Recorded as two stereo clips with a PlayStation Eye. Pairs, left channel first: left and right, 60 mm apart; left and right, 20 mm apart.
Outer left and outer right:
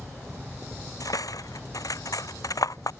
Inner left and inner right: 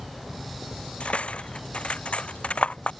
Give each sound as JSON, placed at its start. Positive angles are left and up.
{"t": 1.0, "sound": "cutlery clinking", "side_deg": 80}